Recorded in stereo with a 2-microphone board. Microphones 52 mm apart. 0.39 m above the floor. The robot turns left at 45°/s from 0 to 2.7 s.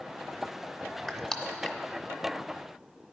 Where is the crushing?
Centre (ahead or behind), 0.8 m; by 1.8 s 30° left (ahead or behind), 0.8 m.